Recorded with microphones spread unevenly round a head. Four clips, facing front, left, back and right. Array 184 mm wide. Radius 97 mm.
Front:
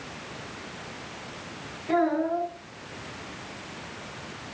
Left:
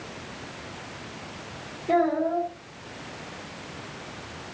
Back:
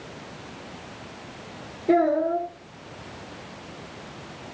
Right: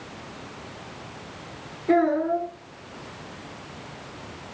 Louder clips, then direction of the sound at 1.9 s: Right 2 dB, back 4 dB; straight behind.